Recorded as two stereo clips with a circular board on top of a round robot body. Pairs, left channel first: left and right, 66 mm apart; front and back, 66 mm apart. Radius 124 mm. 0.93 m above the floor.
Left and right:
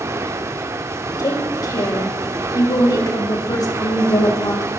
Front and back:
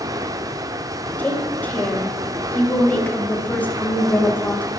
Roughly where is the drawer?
No drawer in this recording.